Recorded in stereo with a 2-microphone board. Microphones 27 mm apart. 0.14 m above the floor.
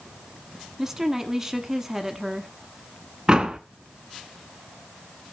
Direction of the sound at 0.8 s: 20° right (ahead or behind).